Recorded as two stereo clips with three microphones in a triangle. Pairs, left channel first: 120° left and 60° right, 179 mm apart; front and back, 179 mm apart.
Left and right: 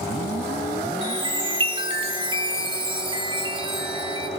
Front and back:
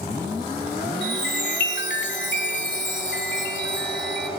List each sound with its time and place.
1.0 s a chime: straight ahead, 1.9 m